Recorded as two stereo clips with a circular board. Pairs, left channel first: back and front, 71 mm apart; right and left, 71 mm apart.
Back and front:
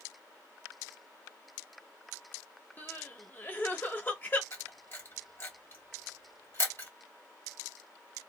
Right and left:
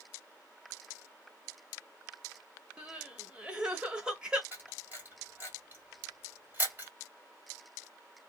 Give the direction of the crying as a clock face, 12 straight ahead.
7 o'clock.